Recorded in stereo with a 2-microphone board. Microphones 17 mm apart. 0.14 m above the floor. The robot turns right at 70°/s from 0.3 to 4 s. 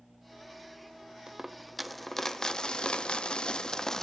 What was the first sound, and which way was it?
A dropped coin, 45° right.